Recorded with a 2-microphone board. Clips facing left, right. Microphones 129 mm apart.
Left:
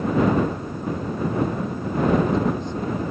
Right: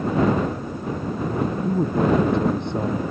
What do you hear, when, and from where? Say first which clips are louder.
1.6 s a man speaking: right 2 dB; 70° right (ahead or behind)